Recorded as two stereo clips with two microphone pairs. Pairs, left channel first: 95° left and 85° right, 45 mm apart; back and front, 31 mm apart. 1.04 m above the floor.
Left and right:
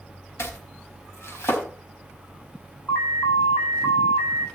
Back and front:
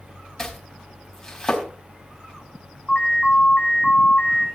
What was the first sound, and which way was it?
Chopping, 105° left.